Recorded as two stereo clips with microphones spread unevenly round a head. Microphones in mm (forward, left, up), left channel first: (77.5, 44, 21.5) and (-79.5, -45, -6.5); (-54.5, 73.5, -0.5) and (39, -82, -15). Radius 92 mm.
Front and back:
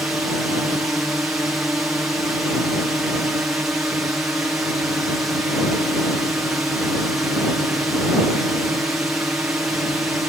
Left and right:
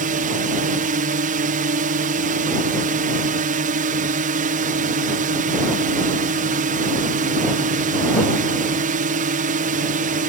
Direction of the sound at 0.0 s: 70° right.